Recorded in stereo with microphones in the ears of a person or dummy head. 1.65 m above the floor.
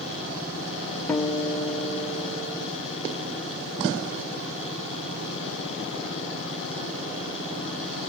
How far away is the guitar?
About 0.9 m.